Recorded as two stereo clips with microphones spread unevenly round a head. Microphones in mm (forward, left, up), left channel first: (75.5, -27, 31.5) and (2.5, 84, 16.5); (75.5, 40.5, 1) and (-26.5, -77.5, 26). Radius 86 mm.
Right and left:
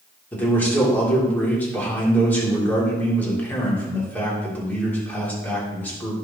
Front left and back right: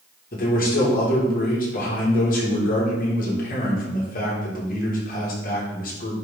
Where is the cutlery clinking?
No cutlery clinking in this recording.